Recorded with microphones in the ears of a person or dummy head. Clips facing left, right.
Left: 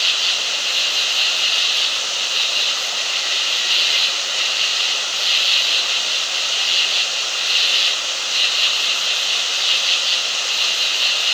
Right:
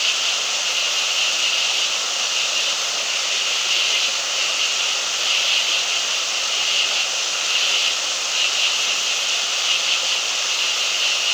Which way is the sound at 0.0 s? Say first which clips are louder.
Even; 20° left (ahead or behind).